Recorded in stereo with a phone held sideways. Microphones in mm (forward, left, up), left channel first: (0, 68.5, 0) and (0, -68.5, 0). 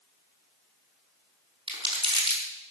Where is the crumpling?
40° right (ahead or behind), 5.5 m.